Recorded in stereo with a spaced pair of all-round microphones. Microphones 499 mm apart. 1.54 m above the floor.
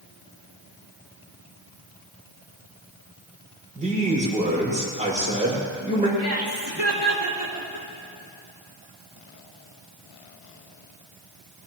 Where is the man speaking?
15° right (ahead or behind), 6.5 m.